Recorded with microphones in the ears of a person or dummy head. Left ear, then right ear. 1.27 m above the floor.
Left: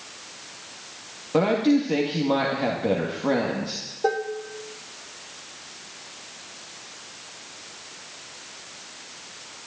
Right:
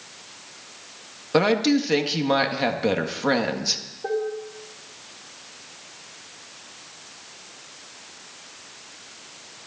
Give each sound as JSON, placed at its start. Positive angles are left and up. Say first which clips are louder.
{"t": 1.3, "sound": "a woman speaking", "louder": "right 1 dB", "side_deg": -45, "distance_m": 1.7}
{"t": 4.0, "sound": "dishes clattering", "louder": "left 2 dB", "side_deg": 70, "distance_m": 1.6}